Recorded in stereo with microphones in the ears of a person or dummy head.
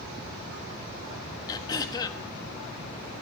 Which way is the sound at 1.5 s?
20° left (ahead or behind).